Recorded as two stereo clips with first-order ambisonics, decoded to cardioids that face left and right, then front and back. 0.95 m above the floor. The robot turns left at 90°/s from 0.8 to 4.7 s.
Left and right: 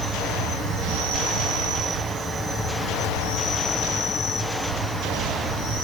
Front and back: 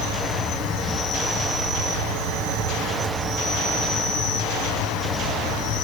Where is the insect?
35° right, 2 m; by 5.8 s 25° right, 2 m.